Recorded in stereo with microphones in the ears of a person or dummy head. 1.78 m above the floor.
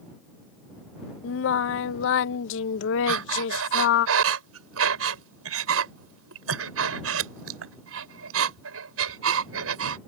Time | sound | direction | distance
1.2 | singing | 75° left (ahead or behind) | ?
3.1 | breathing | 80° right | ?